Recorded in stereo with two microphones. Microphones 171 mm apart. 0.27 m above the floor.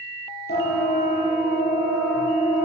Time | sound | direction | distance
0.5 | a siren | 70° left (ahead or behind) | 9.5 m